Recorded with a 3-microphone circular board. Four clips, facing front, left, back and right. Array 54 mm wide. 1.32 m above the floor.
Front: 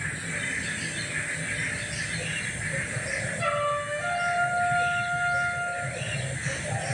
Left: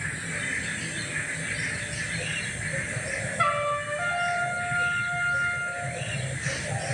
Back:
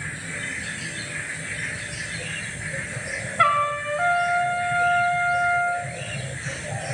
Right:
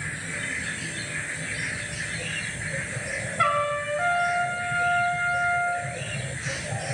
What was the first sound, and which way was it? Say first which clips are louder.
A trumpet: right 2 dB, back 8 dB; 175° right.